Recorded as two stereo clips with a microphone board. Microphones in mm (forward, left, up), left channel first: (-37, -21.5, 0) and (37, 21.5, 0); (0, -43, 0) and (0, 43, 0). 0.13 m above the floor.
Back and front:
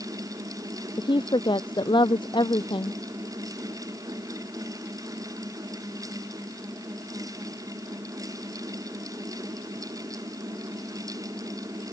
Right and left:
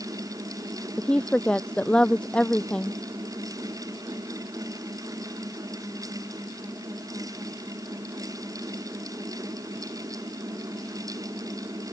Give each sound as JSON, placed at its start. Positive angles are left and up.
{"t": 1.0, "sound": "a woman speaking", "azimuth_deg": -170}